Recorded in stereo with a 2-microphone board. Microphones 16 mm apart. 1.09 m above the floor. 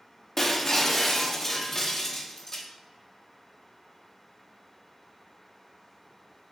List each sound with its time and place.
0.4 s breaking glass: 25° left (ahead or behind), 0.6 m